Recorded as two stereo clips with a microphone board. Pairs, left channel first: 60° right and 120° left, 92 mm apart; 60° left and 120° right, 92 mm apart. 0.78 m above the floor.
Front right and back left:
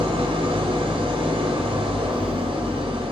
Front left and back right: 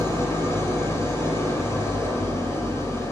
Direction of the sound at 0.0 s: 120° left.